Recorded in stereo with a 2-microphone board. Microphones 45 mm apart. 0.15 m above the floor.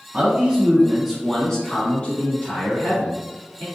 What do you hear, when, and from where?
0.1 s a man speaking: 25° right (ahead or behind), 1.7 m; by 3.6 s 55° left (ahead or behind), 2.5 m